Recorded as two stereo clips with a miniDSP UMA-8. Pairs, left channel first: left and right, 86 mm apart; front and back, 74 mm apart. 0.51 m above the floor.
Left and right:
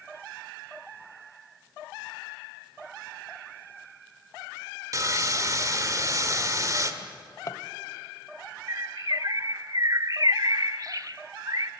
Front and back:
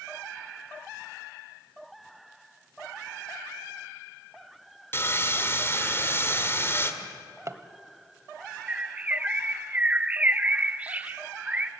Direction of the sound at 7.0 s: 135° left.